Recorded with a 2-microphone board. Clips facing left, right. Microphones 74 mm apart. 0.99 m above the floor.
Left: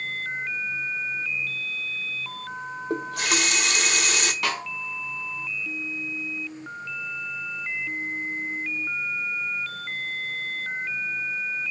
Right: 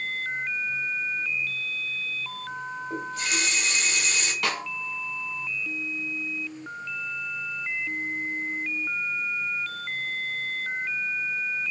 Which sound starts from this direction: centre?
A snare drum, at 4.4 s.